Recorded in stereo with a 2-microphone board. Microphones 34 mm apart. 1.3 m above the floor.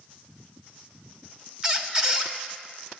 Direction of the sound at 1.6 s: 25° right (ahead or behind).